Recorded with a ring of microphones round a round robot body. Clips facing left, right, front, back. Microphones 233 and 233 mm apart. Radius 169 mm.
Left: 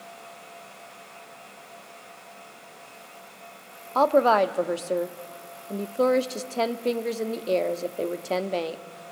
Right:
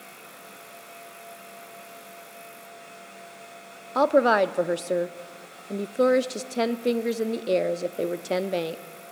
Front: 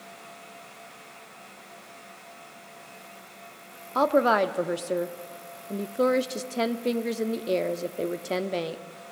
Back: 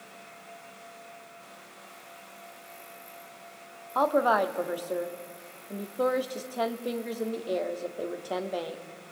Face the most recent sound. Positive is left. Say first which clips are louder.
# even, front 3 dB
turn(degrees=-30)